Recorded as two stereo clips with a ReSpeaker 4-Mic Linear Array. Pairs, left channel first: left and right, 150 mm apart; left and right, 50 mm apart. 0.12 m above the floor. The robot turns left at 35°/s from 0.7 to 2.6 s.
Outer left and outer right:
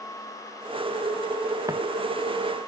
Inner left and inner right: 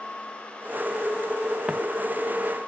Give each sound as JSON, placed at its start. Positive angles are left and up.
{"t": 1.7, "sound": "footsteps", "side_deg": -20}